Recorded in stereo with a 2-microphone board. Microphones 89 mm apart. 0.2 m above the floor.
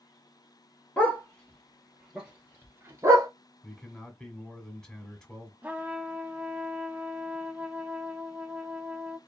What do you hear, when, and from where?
1.0 s a dog barking: 15° left (ahead or behind), 1.5 m; by 3.3 s 40° right (ahead or behind), 1.0 m
3.6 s a man speaking: 5° left (ahead or behind), 1.2 m
5.6 s a trumpet: 15° right (ahead or behind), 0.5 m